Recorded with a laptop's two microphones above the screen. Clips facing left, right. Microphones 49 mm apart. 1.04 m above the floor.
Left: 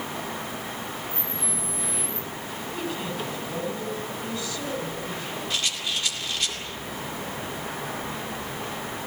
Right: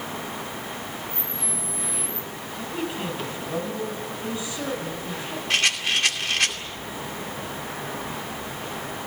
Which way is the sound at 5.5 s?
70° right (ahead or behind).